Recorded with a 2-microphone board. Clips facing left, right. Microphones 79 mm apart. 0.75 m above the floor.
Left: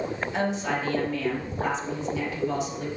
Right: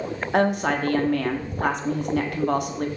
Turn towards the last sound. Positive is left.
turn(degrees=-60)  # may be behind; listen again after turning